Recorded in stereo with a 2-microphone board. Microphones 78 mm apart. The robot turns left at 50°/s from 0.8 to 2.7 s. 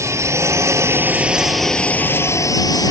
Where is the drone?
140° right; by 2.9 s 125° left.